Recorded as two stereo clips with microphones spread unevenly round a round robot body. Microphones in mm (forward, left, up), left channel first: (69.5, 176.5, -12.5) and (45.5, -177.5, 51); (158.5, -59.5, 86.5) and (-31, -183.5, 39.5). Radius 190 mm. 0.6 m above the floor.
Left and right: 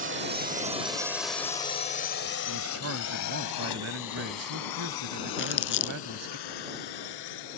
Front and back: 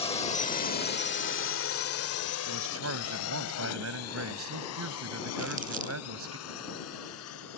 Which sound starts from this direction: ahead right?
A drone, at 0.0 s.